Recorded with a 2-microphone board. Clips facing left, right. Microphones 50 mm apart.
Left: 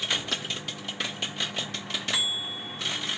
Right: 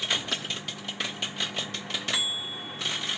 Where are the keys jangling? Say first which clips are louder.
Even; centre (ahead or behind), 1.8 m.